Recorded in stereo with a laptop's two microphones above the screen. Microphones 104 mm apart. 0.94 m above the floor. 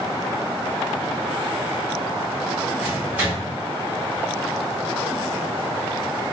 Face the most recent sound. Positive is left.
turn(degrees=-15)  # may be behind; listen again after turning